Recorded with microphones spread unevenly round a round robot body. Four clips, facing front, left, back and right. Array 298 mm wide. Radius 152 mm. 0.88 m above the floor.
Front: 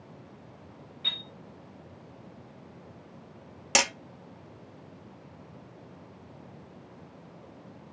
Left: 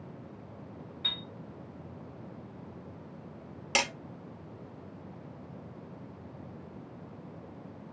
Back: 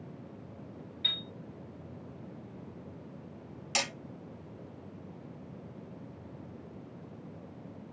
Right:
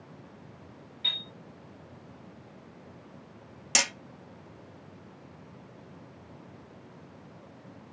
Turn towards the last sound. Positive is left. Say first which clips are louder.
# left 2 dB, front 8 dB
turn(degrees=10)